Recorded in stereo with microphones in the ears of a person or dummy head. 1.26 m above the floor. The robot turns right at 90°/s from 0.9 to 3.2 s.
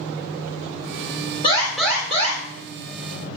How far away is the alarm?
About 3.5 m.